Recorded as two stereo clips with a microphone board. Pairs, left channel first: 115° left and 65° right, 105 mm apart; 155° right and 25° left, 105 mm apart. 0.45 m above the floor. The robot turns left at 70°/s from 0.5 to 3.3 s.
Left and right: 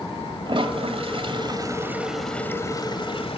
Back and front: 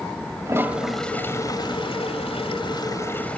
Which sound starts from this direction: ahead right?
A toilet flushing, at 0.5 s.